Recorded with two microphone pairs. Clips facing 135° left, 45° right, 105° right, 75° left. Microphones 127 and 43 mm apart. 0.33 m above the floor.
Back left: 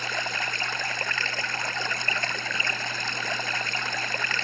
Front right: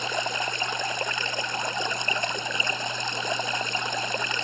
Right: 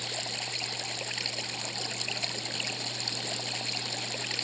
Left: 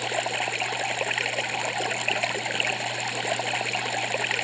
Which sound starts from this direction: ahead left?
Running water, at 0.0 s.